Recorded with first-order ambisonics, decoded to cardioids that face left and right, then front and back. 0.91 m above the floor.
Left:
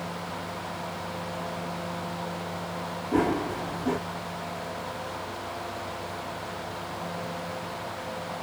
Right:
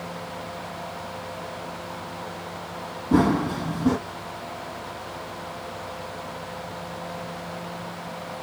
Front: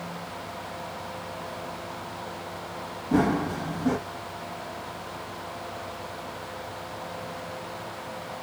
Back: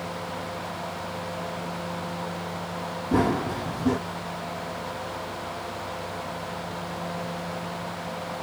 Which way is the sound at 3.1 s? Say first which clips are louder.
Right 4 dB, even; 95° right.